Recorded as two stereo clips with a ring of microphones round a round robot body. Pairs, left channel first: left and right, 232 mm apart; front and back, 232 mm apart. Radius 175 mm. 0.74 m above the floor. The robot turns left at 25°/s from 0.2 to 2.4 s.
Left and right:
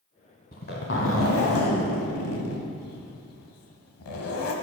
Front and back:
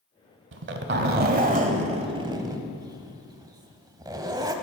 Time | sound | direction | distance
0.5 | a zipper | 155° left | 0.9 m